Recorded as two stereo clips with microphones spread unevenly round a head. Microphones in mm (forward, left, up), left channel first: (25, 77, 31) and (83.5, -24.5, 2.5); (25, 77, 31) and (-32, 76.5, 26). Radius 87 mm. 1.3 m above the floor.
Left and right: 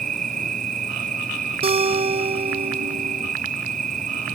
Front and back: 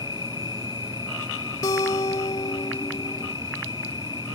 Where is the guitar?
20° right.